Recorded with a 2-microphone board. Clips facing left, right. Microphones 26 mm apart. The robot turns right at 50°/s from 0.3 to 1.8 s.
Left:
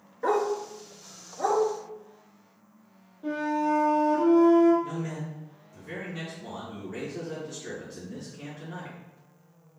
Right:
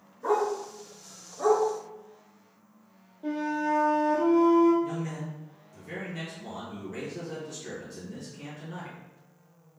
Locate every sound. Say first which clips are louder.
0.2 s a dog barking: left 1 dB; 60° left (ahead or behind), 0.8 m; by 1.6 s centre (ahead or behind), 0.8 m
3.2 s a flute: left 2 dB; 5° right (ahead or behind), 1.9 m
4.8 s a man speaking: even; 10° left (ahead or behind), 1.4 m